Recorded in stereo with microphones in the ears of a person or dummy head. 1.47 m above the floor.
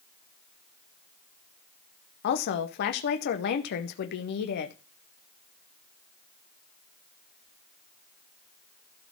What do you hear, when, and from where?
2.2 s a woman speaking: 65° left (ahead or behind), 0.7 m